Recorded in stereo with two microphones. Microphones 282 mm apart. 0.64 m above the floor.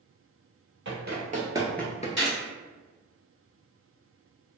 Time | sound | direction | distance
0.8 | running footsteps | 45° right (ahead or behind) | 1.1 m
2.2 | a gunshot | 35° left (ahead or behind) | 1.5 m